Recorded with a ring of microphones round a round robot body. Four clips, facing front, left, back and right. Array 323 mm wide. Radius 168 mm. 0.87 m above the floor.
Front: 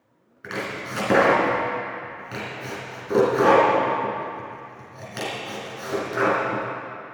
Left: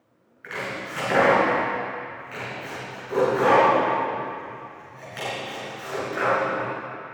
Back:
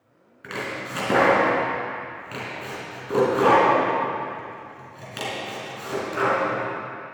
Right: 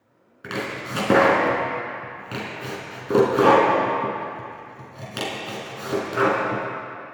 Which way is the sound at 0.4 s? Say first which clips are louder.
Right 2 dB, front 1 dB; 85° right.